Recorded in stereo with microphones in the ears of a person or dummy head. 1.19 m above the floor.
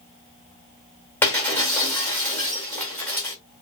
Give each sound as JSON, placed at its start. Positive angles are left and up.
{"t": 1.2, "sound": "breaking glass", "side_deg": 15, "distance_m": 1.6}